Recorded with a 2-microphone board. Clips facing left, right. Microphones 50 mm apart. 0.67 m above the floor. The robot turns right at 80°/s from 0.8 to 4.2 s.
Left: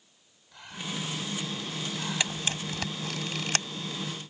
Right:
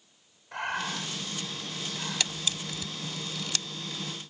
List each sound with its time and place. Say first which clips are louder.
0.5 s breathing: right 6 dB; 70° right (ahead or behind); by 2.6 s 40° left (ahead or behind)
2.2 s a camera shutter: left 2 dB; 20° left (ahead or behind); by 3.6 s 40° left (ahead or behind)